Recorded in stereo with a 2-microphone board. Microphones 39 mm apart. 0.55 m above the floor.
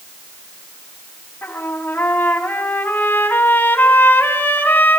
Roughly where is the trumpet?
Left.